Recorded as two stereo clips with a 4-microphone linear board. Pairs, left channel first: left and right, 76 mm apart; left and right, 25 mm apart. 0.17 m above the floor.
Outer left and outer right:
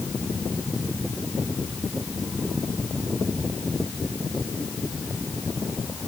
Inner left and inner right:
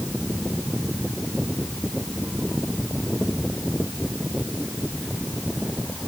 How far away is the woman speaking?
I don't hear a woman speaking.